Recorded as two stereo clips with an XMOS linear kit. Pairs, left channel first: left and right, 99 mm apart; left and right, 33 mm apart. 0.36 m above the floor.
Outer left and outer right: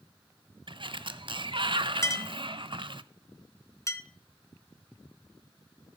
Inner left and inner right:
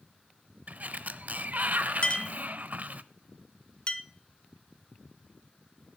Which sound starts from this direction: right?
A sliding door, at 0.7 s.